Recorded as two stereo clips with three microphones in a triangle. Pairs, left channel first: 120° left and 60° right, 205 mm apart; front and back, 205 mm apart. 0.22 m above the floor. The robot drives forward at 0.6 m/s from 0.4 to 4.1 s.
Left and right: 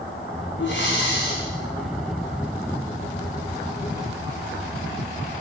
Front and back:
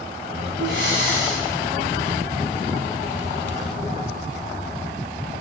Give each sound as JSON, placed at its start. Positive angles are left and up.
{"t": 0.6, "sound": "breathing", "azimuth_deg": 145, "distance_m": 7.0}